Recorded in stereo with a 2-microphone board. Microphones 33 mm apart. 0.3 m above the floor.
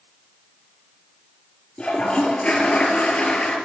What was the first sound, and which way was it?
A toilet flushing, 40° left (ahead or behind).